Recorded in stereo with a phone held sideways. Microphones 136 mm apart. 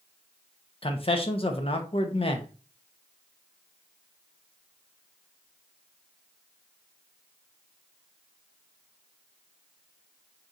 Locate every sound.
0.8 s a man speaking: 45° left (ahead or behind), 0.7 m